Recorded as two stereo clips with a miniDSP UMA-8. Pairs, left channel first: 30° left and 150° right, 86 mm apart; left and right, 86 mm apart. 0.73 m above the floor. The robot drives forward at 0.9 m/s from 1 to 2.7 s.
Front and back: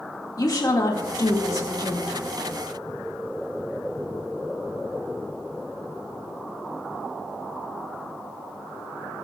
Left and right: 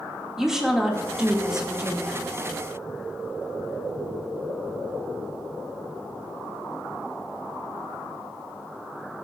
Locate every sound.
0.4 s a woman speaking: 5° right, 2 m; by 2.2 s 15° right, 1.4 m